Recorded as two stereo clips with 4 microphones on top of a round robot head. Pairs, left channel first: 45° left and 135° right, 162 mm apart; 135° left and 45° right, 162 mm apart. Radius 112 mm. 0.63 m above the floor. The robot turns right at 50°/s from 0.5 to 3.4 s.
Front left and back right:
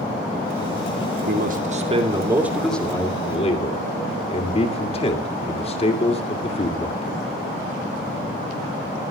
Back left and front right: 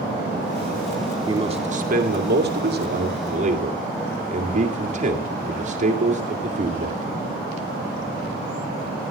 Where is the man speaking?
110° right, 2.5 m; by 7.2 s 5° right, 2.5 m.